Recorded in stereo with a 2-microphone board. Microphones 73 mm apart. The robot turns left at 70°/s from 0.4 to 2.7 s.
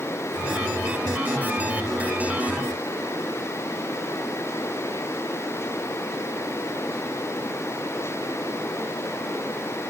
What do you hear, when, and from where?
Only background noise.